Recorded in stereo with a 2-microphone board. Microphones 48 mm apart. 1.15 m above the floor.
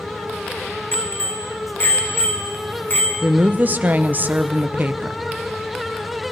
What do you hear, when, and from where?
0.9 s a bicycle bell: 55° left (ahead or behind), 3.5 m
3.2 s a woman speaking: 35° right (ahead or behind), 0.6 m